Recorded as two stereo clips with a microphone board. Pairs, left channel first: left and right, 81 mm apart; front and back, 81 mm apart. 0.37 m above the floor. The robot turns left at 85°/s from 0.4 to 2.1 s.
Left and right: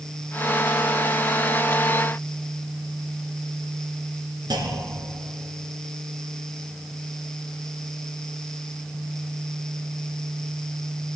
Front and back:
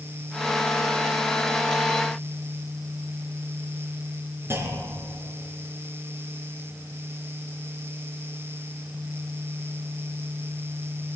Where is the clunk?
120° right, 1.7 m.